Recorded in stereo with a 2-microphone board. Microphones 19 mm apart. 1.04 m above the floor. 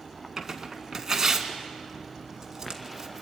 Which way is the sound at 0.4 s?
25° right (ahead or behind).